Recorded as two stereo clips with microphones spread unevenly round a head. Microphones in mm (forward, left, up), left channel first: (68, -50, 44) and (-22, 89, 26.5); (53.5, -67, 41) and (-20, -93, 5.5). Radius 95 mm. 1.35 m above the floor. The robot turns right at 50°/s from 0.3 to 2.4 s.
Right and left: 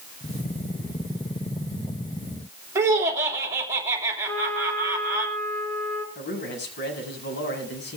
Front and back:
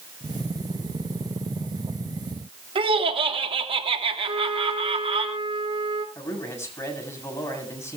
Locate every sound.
2.8 s laughter: 160° right, 3 m
4.3 s a trumpet: 140° right, 4 m
6.2 s a man speaking: 35° right, 7.5 m